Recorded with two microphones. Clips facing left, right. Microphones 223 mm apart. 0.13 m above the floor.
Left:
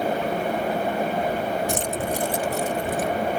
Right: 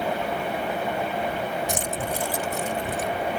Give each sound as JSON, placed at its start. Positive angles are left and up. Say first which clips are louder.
{"t": 1.7, "sound": "keys jangling", "louder": "left 3 dB", "side_deg": -20}